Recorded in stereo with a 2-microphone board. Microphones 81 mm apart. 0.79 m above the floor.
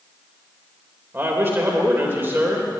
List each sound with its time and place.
1.1 s a man speaking: 30° right (ahead or behind), 3 m